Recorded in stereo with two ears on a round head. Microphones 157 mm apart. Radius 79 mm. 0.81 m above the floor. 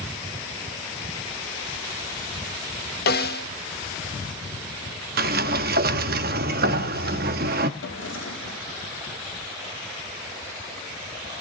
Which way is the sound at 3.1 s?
55° left (ahead or behind).